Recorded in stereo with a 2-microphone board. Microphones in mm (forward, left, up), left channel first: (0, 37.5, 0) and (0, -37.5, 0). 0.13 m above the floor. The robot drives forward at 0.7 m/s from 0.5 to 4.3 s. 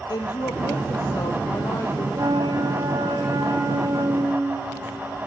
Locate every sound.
0.1 s a woman speaking: 60° left (ahead or behind), 3.5 m; by 2.0 s 45° left (ahead or behind), 4 m
2.1 s a flute: 70° right (ahead or behind), 4 m; by 5.2 s 55° right (ahead or behind), 4.5 m